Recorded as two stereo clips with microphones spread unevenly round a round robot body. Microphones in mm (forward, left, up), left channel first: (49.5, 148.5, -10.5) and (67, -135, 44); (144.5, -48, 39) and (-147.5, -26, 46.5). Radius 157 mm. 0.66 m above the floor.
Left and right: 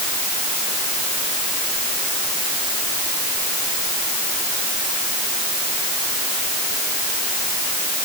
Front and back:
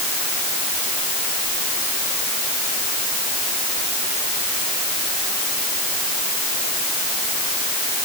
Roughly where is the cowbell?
I don't hear a cowbell.